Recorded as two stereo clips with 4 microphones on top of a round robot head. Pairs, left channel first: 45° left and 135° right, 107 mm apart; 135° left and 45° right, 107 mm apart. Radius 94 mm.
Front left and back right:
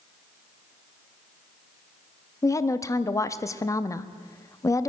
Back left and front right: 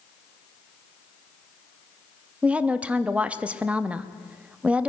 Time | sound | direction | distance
2.4 | a woman speaking | 20° left | 0.7 m